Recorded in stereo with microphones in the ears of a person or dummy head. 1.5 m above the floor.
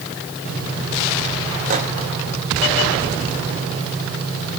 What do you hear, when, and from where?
1.7 s a microwave: 50° right (ahead or behind), 2 m